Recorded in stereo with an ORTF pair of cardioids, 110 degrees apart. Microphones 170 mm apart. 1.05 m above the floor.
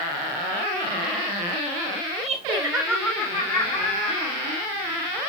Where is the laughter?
45° right, 0.9 m; by 4.4 s 50° left, 2 m.